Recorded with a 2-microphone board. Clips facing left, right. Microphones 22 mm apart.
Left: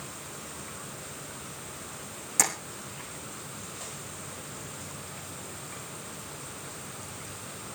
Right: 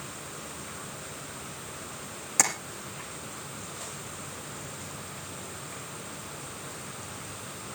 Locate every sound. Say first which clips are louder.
2.4 s tapping: right 1 dB; 10° right (ahead or behind), 5.5 m